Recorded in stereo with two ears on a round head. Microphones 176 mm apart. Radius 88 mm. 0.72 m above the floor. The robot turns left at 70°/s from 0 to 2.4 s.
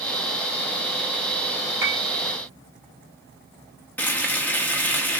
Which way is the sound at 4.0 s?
10° left (ahead or behind).